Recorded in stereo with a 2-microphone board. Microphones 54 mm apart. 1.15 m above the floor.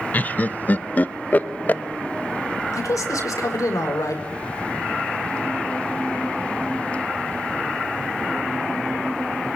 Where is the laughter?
30° left (ahead or behind), 1.0 m.